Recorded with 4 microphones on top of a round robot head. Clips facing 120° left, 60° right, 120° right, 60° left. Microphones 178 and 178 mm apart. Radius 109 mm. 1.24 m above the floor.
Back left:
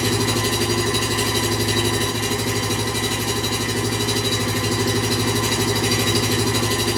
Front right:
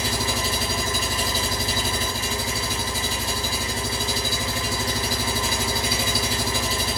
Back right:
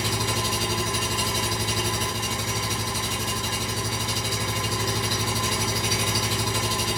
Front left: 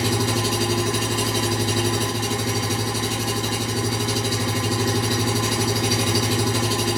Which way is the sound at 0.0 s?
90° left.